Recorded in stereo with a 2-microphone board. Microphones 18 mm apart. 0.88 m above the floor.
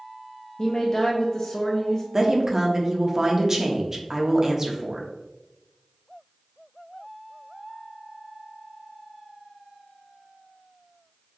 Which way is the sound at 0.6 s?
45° left (ahead or behind).